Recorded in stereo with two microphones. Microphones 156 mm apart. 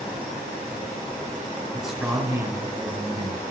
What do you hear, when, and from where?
1.7 s a man speaking: centre (ahead or behind), 1.6 m; by 3.4 s 40° right (ahead or behind), 2 m